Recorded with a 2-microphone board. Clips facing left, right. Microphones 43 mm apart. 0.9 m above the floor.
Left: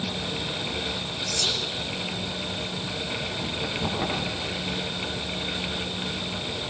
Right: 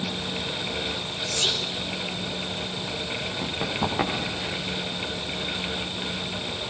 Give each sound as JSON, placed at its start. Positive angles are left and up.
{"t": 1.3, "sound": "whispering", "side_deg": -40, "distance_m": 2.5}
{"t": 3.4, "sound": "running footsteps", "side_deg": -80, "distance_m": 7.5}